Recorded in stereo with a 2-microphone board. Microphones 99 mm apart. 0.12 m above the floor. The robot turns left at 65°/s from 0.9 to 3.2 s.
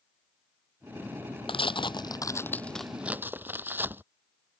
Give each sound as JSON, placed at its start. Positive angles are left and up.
{"t": 1.5, "sound": "tearing paper", "azimuth_deg": 90}